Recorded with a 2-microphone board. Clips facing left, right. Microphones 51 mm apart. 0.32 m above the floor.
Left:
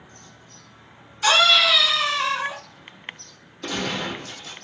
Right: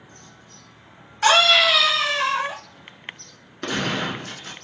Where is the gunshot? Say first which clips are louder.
Right 3 dB; 85° right, 0.8 m.